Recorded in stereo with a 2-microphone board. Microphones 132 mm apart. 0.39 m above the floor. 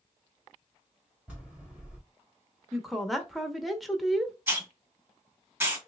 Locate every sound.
1.3 s a bell: 10° right (ahead or behind), 2.5 m
2.7 s a woman speaking: centre (ahead or behind), 0.9 m
4.5 s a hiss: 15° right (ahead or behind), 1.4 m